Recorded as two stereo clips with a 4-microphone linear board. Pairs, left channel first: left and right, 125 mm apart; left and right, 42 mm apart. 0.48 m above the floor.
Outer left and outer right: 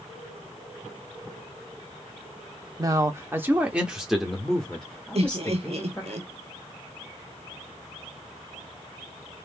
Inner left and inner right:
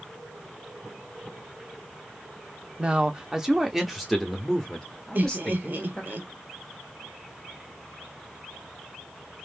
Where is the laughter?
55° right (ahead or behind), 1.1 m.